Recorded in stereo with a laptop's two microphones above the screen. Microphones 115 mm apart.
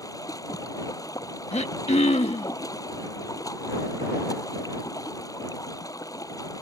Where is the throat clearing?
65° left (ahead or behind).